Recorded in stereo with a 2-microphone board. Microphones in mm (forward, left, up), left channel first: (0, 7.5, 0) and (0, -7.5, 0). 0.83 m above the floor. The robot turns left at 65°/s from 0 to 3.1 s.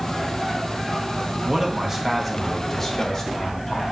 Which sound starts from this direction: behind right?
A man speaking, at 1.4 s.